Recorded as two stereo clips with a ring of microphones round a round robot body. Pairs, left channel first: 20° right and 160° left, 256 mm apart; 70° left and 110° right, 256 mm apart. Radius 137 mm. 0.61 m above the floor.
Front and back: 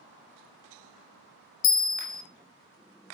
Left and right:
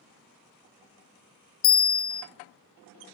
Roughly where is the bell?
Ahead left.